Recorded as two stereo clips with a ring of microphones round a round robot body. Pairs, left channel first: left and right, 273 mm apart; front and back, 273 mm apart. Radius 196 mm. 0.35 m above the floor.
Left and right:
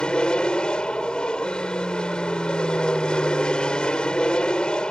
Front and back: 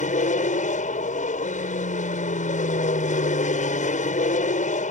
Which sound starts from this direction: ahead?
An aircraft, at 0.0 s.